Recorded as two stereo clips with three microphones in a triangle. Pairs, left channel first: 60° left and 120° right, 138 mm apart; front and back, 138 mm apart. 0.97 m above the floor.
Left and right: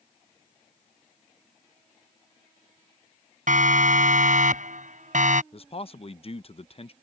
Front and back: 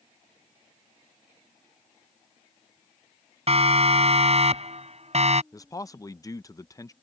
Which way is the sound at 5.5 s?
55° left.